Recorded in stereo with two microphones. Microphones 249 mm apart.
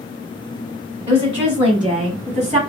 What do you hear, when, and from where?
1.1 s a woman speaking: 20° right (ahead or behind), 1.2 m; by 2.6 s 25° right (ahead or behind), 1.4 m